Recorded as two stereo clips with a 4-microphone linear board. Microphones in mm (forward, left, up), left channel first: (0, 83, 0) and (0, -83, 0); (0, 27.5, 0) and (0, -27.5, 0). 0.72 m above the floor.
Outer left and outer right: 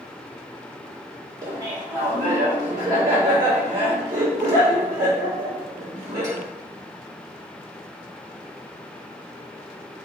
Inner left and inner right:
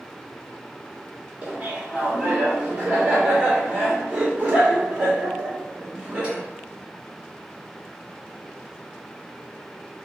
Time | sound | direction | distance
1.4 | laughter | 25° right (ahead or behind) | 1.7 m